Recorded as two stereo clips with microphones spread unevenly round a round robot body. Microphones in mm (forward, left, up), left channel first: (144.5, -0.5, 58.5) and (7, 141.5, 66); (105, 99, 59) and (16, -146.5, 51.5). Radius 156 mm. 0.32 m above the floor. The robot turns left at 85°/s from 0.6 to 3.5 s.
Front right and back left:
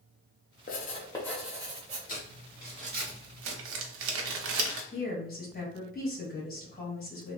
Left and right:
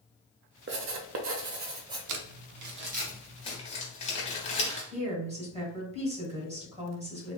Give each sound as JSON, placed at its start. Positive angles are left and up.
{"t": 0.7, "sound": "writing", "azimuth_deg": -70, "distance_m": 0.6}
{"t": 2.1, "sound": "crumpling", "azimuth_deg": -100, "distance_m": 0.6}
{"t": 4.9, "sound": "a woman speaking", "azimuth_deg": -55, "distance_m": 1.6}